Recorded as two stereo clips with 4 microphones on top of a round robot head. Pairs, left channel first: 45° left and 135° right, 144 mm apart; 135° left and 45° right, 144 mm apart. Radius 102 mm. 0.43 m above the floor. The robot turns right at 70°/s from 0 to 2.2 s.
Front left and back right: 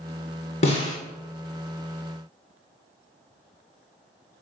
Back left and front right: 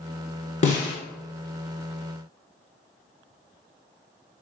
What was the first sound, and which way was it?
A snare drum, 90° left.